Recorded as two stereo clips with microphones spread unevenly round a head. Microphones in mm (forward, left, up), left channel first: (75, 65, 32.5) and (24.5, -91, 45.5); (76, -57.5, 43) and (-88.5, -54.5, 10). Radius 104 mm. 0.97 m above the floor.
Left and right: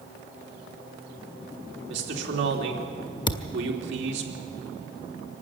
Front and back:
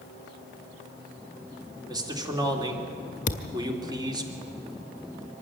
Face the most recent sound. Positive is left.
turn(degrees=10)